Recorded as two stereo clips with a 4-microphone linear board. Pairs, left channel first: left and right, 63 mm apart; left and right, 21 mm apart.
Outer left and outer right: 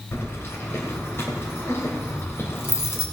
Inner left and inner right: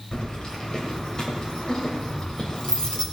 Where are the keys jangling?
40° left (ahead or behind), 2.5 m.